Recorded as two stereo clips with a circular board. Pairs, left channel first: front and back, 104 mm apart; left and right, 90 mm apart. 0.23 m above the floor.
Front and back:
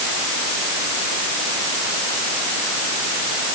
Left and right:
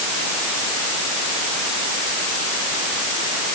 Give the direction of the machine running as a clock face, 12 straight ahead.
No machine running in this recording.